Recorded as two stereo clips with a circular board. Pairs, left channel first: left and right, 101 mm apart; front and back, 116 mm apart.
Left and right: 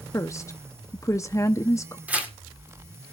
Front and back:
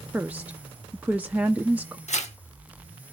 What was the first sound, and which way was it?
A woman speaking, 115° left.